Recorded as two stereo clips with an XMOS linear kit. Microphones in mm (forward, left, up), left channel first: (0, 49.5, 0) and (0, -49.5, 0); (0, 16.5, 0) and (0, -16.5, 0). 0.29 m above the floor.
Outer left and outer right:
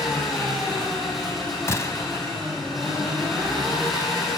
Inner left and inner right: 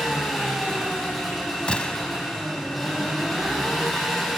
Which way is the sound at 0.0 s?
Centre (ahead or behind).